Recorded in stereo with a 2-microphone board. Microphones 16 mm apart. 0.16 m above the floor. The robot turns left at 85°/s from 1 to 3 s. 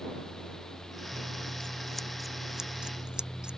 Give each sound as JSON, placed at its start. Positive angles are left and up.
{"t": 1.1, "sound": "scissors", "azimuth_deg": 90}